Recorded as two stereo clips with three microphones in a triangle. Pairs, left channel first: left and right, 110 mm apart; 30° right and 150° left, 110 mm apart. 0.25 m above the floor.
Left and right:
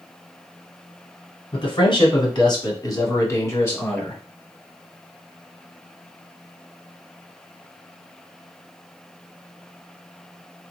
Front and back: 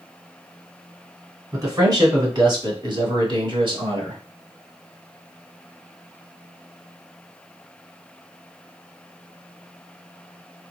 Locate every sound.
1.5 s a man speaking: 105° left, 2 m; by 4.2 s 160° left, 1.8 m